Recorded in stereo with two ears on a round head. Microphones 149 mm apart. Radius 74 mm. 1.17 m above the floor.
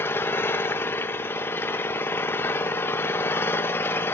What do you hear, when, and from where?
0.0 s an engine running: 15° left (ahead or behind), 1.0 m